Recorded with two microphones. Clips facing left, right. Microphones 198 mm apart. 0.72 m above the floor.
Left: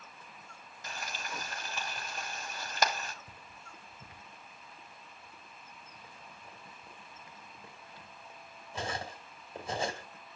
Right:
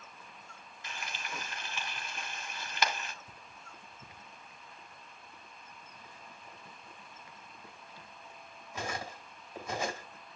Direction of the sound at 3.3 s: 30° left (ahead or behind).